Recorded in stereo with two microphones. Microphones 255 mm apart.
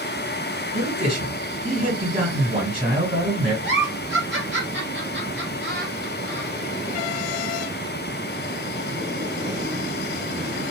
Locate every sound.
0.7 s a man speaking: 30° right (ahead or behind), 2.5 m
3.6 s a giggle: 45° right (ahead or behind), 2.5 m